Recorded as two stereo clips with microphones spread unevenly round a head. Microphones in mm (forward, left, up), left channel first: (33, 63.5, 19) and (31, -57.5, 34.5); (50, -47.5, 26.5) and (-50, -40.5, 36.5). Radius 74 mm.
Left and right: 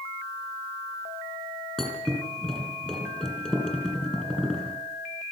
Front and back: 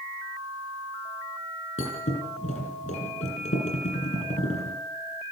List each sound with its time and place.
1.8 s a thud: 5° left, 8.5 m